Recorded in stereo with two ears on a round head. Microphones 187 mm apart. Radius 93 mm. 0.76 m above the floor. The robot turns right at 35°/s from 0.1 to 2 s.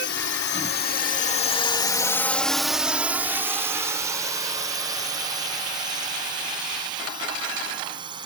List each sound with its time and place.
0.0 s a drone: 60° left (ahead or behind); by 8.3 s 20° right (ahead or behind)